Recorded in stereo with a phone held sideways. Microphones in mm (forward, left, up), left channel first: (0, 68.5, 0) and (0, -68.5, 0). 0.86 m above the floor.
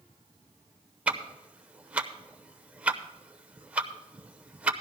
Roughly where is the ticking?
Centre.